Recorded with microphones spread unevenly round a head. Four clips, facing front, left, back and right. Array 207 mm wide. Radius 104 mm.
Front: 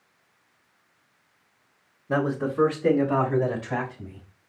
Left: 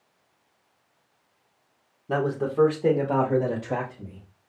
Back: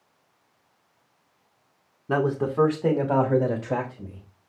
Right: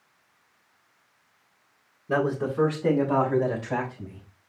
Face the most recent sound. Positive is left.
turn(degrees=140)